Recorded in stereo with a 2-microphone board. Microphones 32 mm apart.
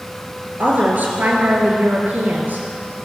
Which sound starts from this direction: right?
A woman speaking, at 0.6 s.